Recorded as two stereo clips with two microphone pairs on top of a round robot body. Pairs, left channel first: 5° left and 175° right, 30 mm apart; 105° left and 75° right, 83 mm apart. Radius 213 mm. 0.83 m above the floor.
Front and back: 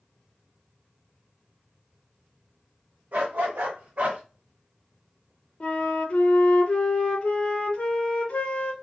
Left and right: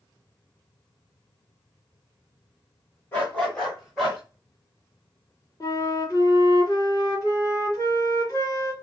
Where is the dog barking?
170° left, 1.1 m; by 4.2 s 155° right, 1.4 m.